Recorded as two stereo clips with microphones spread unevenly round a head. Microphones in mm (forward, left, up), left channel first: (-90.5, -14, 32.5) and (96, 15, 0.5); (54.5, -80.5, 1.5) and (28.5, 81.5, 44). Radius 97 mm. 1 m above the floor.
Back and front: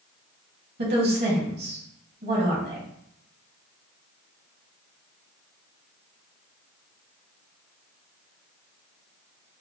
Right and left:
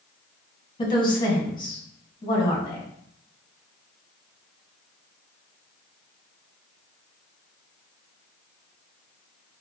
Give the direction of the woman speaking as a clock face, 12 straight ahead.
1 o'clock.